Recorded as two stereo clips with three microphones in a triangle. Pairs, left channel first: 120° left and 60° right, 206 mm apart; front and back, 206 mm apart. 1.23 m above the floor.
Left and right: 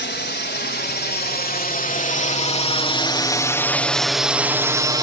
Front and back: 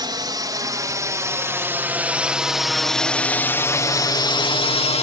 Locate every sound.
0.0 s a drone: 115° left; by 5.0 s 10° right